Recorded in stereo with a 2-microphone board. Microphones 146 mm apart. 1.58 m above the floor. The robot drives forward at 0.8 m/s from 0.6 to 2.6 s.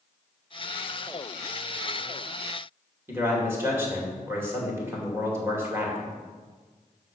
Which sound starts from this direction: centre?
A man speaking, at 3.1 s.